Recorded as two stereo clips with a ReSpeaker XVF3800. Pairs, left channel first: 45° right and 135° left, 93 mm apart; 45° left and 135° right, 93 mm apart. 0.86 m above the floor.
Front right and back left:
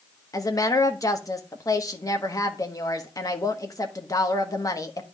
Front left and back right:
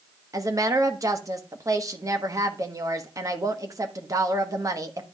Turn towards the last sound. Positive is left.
turn(degrees=-90)